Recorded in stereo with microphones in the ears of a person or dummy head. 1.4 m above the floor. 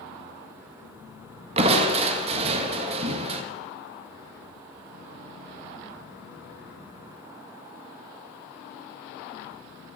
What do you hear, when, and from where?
1.6 s crushing: 35° right (ahead or behind), 1.8 m